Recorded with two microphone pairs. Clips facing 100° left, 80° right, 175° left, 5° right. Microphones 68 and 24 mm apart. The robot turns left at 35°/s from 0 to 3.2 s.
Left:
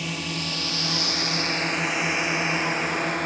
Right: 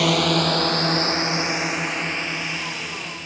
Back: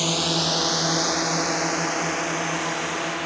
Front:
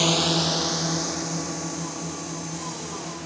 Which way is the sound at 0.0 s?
80° right.